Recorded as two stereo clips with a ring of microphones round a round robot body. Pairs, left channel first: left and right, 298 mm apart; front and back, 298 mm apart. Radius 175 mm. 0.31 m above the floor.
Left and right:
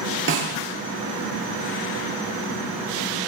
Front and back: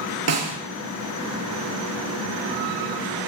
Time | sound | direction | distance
0.3 | a snare drum | 145° right | 6.5 m